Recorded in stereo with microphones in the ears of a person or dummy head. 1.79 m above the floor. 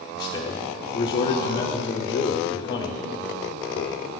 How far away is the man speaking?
About 0.6 m.